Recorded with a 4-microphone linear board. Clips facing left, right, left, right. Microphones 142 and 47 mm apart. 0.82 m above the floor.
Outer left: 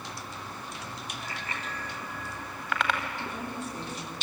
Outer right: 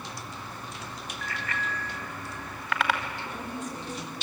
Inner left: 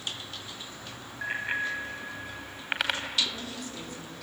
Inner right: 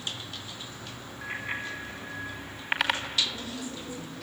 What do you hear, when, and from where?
1.2 s a bicycle bell: 30° left (ahead or behind), 3.5 m; by 3.0 s 5° right (ahead or behind), 3.5 m
3.2 s a woman speaking: 65° left (ahead or behind), 8 m